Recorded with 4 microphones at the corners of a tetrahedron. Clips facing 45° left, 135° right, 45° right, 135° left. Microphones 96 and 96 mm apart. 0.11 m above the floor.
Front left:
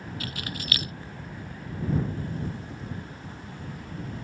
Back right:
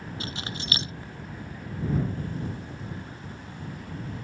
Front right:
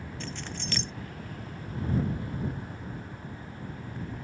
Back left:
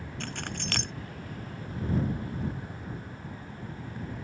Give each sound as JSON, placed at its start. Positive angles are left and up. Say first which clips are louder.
{"t": 0.2, "sound": "keys jangling", "louder": "back right 1 dB, back left 3 dB", "azimuth_deg": 160}